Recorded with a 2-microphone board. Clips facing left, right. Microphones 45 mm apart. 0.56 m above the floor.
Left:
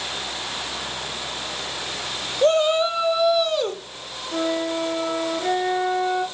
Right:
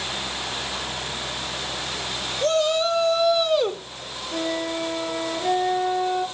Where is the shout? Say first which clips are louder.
Left 3 dB; 30° left (ahead or behind), 3 m; by 3.8 s 15° right (ahead or behind), 1.9 m.